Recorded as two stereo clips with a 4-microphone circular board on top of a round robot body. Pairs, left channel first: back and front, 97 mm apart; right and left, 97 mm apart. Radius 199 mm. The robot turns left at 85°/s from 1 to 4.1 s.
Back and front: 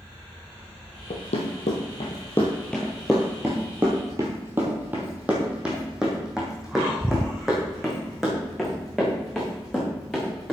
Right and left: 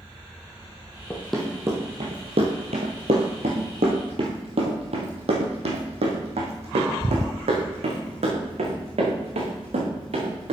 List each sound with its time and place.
1.1 s running footsteps: 160° right, 1.3 m; by 10.5 s 95° left, 4 m